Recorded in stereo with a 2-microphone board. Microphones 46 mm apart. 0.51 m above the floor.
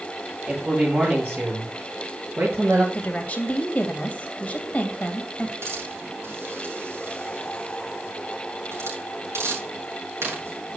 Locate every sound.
0.5 s a man speaking: 40° right (ahead or behind), 9.5 m; by 2.8 s 50° right (ahead or behind), 10.5 m
2.9 s a woman speaking: 30° left (ahead or behind), 2.5 m
5.6 s a hiss: 75° right (ahead or behind), 7.5 m